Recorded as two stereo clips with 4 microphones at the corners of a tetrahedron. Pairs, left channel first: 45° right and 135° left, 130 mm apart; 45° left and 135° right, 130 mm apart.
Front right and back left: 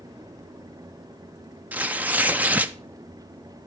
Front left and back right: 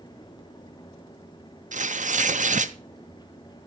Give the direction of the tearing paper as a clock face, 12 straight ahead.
5 o'clock.